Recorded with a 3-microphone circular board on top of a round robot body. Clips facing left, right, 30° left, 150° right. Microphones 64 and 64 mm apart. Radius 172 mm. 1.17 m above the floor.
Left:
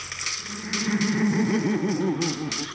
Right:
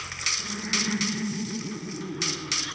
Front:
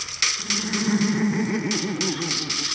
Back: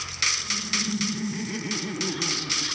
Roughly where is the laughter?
Ahead.